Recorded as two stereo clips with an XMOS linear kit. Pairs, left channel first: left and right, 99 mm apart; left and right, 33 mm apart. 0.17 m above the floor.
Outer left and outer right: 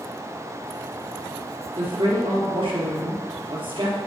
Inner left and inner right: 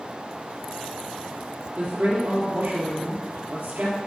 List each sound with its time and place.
1.8 s a woman speaking: 55° right (ahead or behind), 4 m